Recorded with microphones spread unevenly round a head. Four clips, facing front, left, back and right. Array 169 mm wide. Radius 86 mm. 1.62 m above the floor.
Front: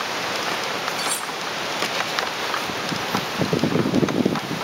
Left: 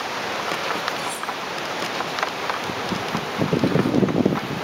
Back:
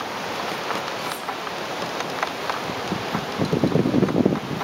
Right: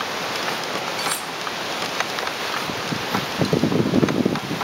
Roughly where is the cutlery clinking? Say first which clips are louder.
Right 1 dB, front 1 dB; ahead right.